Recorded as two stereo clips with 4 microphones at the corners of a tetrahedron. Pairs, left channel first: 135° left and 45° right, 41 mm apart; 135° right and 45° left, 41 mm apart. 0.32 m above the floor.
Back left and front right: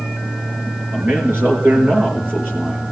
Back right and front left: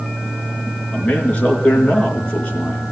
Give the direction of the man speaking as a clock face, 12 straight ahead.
2 o'clock.